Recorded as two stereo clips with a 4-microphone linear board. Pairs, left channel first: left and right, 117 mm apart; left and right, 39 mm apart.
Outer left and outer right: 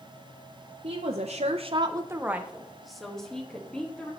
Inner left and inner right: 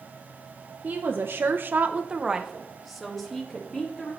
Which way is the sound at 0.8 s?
60° right (ahead or behind).